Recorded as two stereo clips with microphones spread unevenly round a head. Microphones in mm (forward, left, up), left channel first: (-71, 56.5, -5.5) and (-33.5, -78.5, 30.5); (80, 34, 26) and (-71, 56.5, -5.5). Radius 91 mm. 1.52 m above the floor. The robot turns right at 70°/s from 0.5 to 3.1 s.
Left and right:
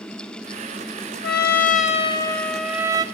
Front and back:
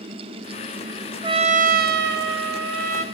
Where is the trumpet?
105° left, 0.8 m; by 3.0 s 125° right, 0.8 m.